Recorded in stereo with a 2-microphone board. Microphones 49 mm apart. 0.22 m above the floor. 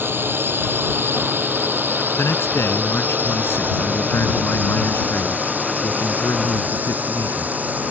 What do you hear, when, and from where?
0.0 s a drone: 45° right (ahead or behind); by 7.9 s 35° right (ahead or behind)
2.2 s a man speaking: 60° left (ahead or behind)